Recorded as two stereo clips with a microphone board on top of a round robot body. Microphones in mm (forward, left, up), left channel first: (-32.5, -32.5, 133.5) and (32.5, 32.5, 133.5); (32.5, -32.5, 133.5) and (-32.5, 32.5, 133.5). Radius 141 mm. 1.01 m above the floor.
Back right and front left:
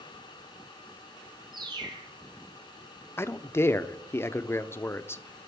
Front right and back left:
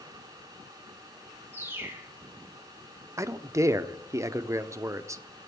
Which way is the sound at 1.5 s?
75° left.